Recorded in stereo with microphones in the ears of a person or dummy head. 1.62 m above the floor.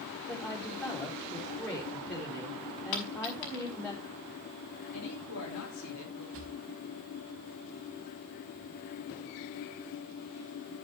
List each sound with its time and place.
0.3 s a woman speaking: 5° left (ahead or behind), 4 m
2.9 s a dropped coin: 65° left (ahead or behind), 5.5 m
4.9 s a woman speaking: 80° left, 5 m
6.3 s a drawer: 65° right (ahead or behind), 3 m